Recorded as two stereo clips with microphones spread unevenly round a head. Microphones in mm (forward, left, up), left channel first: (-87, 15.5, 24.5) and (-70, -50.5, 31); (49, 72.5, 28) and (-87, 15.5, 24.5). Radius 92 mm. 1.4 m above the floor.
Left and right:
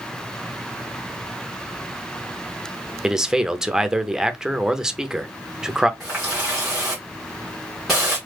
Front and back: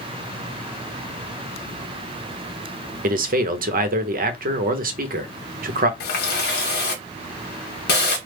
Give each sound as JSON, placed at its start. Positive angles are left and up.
{"t": 3.0, "sound": "a man speaking", "azimuth_deg": -160, "distance_m": 0.8}
{"t": 6.0, "sound": "a running tap", "azimuth_deg": 10, "distance_m": 0.9}